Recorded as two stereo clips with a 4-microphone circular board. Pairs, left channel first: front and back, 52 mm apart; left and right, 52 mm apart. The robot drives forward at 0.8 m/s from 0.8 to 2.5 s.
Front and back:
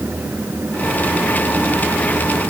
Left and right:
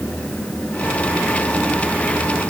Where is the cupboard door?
No cupboard door in this recording.